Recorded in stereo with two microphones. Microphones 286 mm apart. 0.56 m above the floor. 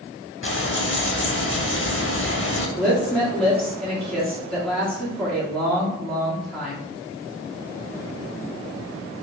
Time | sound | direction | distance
0.4 | frying | 45° left (ahead or behind) | 0.6 m
2.8 | a woman speaking | 5° left (ahead or behind) | 1.3 m